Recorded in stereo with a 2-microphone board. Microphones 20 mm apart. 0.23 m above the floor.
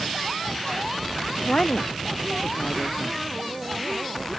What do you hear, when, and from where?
1.4 s a woman speaking: 65° left (ahead or behind)